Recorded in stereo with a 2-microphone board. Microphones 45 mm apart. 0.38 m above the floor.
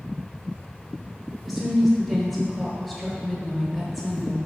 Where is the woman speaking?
Centre (ahead or behind), 1.0 m.